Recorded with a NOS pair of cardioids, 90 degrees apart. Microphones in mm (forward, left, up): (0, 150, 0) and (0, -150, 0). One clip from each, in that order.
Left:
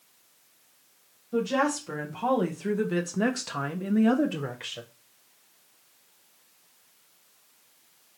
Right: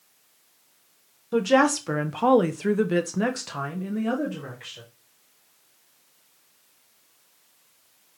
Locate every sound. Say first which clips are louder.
1.3 s a woman speaking: right 6 dB; 70° right, 1.2 m; by 4.8 s 40° left, 1.1 m